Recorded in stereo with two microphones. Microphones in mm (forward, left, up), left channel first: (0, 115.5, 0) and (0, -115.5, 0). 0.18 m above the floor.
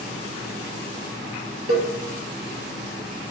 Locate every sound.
1.7 s a cowbell: 70° right (ahead or behind), 2.5 m